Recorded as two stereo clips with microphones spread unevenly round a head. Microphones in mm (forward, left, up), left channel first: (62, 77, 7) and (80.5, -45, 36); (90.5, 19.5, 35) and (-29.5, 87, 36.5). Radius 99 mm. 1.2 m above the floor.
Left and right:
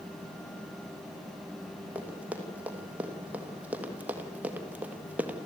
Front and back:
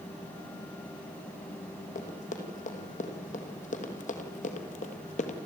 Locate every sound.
1.9 s running footsteps: 10° right, 4 m; by 5.4 s 15° right, 1.9 m